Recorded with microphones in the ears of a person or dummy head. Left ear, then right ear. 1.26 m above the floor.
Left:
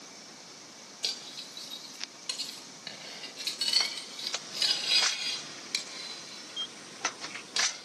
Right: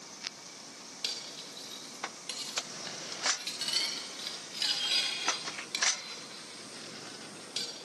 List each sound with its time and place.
1.0 s cutlery clinking: 15° left (ahead or behind), 3.5 m